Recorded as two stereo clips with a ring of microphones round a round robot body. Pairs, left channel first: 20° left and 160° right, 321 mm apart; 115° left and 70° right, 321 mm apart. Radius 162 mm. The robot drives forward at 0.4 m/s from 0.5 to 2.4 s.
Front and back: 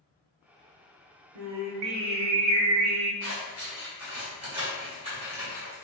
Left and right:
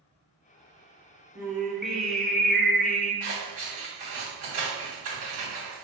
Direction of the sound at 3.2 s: 95° right.